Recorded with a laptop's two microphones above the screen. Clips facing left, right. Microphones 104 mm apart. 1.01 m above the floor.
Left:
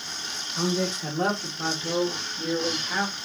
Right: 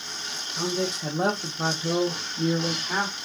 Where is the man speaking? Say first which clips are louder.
Left 1 dB; 5° left (ahead or behind), 0.9 m; by 3.1 s 50° right (ahead or behind), 1.5 m.